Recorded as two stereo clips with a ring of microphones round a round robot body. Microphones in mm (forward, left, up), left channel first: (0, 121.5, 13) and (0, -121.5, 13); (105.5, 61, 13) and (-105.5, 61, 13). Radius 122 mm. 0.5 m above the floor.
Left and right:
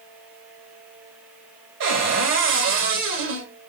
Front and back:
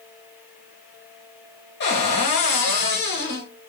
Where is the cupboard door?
50° right, 1.2 m.